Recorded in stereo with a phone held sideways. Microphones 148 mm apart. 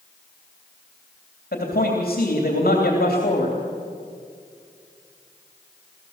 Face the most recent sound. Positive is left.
turn(degrees=85)